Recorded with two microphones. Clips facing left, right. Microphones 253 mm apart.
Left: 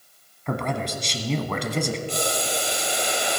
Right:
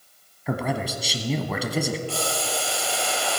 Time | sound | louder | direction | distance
0.5 | a man speaking | right 1 dB | 5° right (ahead or behind) | 1.1 m
2.1 | boiling | left 1 dB | 20° left (ahead or behind) | 1.2 m